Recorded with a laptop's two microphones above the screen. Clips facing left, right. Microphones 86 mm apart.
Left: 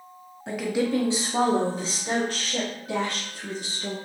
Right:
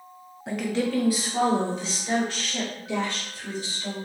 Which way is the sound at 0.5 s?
5° right (ahead or behind).